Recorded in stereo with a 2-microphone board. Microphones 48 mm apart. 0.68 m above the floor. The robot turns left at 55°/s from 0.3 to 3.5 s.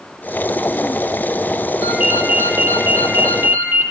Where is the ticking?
No ticking in this recording.